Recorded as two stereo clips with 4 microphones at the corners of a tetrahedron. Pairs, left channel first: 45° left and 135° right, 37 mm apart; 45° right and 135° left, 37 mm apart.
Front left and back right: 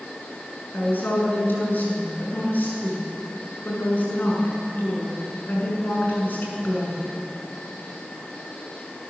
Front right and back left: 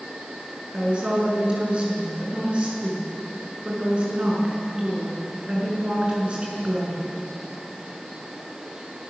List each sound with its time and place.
0.7 s a woman speaking: 75° left, 6.5 m